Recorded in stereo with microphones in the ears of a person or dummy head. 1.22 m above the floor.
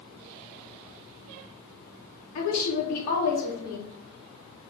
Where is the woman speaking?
80° left, 1.7 m.